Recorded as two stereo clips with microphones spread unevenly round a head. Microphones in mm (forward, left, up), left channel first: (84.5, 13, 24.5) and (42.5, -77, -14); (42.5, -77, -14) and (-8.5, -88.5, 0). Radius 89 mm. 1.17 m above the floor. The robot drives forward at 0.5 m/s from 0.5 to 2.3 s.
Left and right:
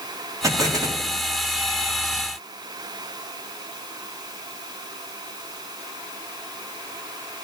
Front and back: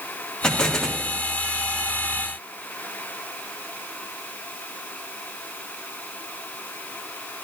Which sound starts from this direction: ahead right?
An explosion, at 0.4 s.